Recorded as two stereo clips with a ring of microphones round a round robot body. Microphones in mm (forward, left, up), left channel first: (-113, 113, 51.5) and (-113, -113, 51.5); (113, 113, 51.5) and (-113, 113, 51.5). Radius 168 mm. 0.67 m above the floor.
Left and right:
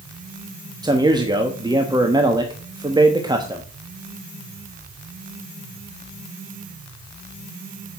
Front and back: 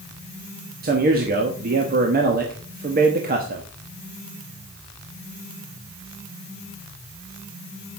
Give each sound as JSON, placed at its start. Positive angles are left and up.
{"t": 0.8, "sound": "a man speaking", "azimuth_deg": -155, "distance_m": 1.2}